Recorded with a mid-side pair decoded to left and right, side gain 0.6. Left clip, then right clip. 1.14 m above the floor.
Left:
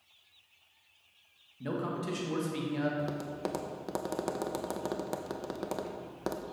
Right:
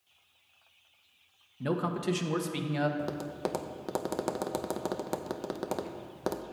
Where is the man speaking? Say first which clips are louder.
Right 4 dB; 35° right, 1.2 m.